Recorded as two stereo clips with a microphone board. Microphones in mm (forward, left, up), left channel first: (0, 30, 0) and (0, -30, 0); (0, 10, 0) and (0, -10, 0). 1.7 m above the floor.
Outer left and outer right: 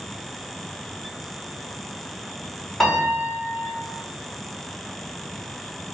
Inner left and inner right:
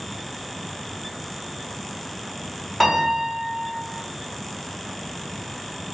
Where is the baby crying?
No baby crying in this recording.